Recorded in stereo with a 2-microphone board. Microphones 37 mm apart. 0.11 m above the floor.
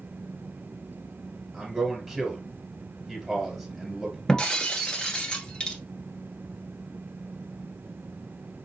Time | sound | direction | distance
1.5 | a man speaking | 10° right (ahead or behind) | 1.9 m
4.3 | breaking glass | 20° left (ahead or behind) | 1.0 m